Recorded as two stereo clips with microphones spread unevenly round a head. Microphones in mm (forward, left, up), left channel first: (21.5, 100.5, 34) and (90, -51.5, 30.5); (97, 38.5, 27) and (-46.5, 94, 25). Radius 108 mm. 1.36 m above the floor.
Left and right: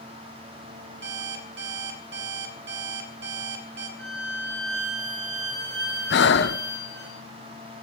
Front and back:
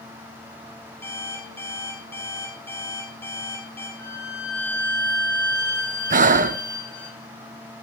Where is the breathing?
130° left, 0.7 m.